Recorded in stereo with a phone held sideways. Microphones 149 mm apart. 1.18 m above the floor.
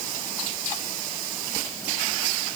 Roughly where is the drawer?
No drawer in this recording.